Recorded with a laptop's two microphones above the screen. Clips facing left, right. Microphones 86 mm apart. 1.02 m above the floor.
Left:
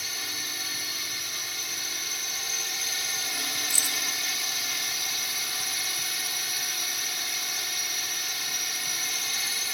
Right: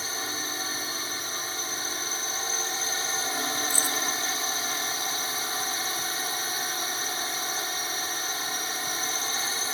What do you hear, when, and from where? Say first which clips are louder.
0.0 s a drone: right 5 dB; 35° right (ahead or behind)
3.7 s keys jangling: right 5 dB; 50° right (ahead or behind)